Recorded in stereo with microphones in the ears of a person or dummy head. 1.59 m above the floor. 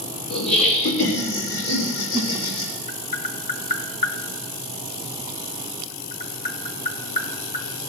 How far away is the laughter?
About 2.5 m.